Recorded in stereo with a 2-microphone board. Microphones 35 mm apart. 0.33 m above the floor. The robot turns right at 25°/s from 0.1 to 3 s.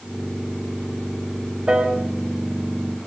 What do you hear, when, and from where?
1.7 s a piano: 35° right (ahead or behind), 1.3 m; by 2.0 s 40° right (ahead or behind), 1.3 m